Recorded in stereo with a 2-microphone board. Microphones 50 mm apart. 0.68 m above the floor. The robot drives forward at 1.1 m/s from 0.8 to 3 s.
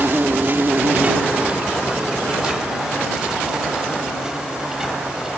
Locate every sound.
0.0 s an insect: 45° right (ahead or behind); by 5.4 s 15° right (ahead or behind)